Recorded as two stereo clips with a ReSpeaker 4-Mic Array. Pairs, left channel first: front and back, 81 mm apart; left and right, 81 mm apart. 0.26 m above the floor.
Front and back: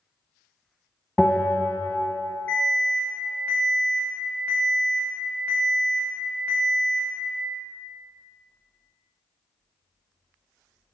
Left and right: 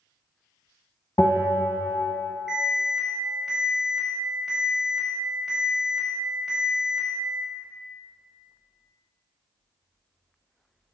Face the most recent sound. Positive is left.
turn(degrees=-10)